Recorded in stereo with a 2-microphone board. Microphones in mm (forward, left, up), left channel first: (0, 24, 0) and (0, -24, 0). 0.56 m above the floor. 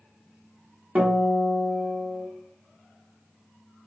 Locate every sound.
0.9 s a guitar: 35° right (ahead or behind), 0.8 m